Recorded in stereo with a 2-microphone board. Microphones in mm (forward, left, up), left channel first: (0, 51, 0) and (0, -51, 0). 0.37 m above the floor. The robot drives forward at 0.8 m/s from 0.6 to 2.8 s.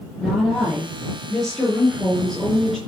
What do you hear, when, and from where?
0.2 s a woman speaking: centre (ahead or behind), 7.5 m